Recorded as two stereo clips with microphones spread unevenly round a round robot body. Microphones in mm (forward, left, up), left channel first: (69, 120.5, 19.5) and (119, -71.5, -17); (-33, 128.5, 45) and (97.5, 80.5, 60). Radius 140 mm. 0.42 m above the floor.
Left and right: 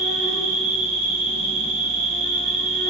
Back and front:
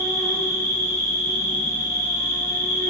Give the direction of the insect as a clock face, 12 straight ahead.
2 o'clock.